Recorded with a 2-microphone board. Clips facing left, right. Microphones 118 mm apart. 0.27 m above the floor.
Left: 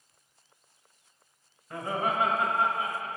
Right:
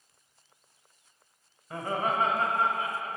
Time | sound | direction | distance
1.7 | laughter | 5° right (ahead or behind) | 1.1 m